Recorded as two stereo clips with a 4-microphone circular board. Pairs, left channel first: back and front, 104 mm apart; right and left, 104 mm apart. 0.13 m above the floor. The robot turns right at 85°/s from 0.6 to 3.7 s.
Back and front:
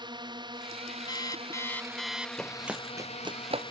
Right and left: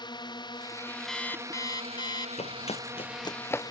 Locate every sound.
0.0 s a drone: 45° right; by 3.7 s 140° right
1.1 s an alarm clock: 175° right; by 2.3 s 70° right
2.4 s running footsteps: 95° right; by 3.7 s 10° right